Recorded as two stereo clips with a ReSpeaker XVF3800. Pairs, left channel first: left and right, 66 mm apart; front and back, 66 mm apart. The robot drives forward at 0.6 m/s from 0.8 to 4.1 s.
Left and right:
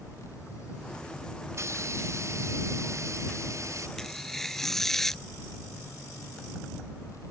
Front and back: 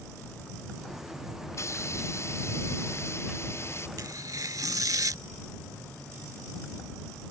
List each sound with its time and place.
1.5 s a hiss: 45° right; by 3.9 s 50° right
4.0 s tearing paper: 170° left; by 5.2 s 175° left